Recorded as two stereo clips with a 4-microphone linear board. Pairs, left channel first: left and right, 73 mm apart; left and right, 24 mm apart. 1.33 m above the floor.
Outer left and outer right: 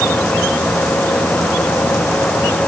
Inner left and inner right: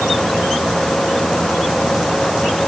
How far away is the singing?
I don't hear singing.